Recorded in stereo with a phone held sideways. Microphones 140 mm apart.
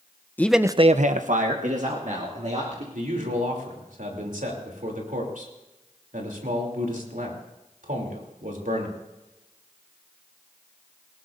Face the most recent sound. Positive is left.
turn(degrees=-70)  # may be behind; listen again after turning